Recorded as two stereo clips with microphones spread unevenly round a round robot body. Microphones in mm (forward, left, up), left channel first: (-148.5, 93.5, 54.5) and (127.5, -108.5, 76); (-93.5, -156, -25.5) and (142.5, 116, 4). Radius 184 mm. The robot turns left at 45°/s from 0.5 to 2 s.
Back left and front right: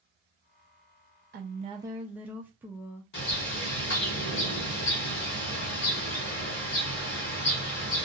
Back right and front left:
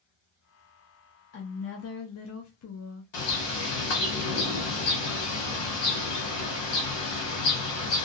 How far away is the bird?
About 1.4 m.